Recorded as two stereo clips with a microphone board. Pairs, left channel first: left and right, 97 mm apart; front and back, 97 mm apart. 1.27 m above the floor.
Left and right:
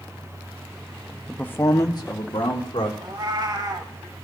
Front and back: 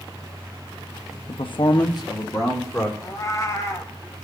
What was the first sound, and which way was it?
A man speaking, straight ahead.